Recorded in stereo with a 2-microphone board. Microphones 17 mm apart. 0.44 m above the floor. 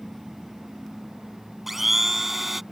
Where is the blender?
10° right (ahead or behind).